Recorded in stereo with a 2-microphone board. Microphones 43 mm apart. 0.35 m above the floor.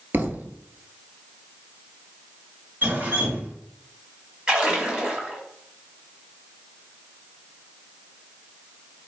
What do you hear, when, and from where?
0.1 s a thud: 50° right (ahead or behind), 0.6 m
2.8 s dripping: 40° right (ahead or behind), 1.9 m
4.5 s a splash: 20° right (ahead or behind), 1.2 m